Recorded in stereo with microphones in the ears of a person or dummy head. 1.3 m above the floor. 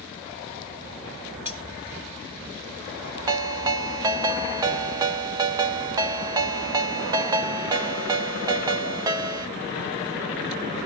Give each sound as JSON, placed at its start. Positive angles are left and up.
{"t": 1.4, "sound": "cutlery clinking", "side_deg": -15, "distance_m": 1.8}
{"t": 3.3, "sound": "a ringtone", "side_deg": -30, "distance_m": 0.5}